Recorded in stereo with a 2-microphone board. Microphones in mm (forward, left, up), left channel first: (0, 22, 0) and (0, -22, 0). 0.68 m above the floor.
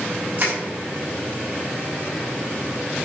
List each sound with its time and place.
0.4 s crushing: 40° right (ahead or behind), 4.5 m